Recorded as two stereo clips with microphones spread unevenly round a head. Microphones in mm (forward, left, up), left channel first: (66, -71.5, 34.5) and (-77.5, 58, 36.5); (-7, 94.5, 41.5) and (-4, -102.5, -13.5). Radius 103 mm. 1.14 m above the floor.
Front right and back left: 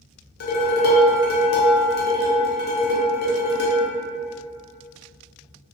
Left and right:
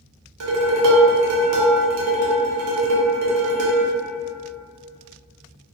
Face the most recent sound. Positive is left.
turn(degrees=-85)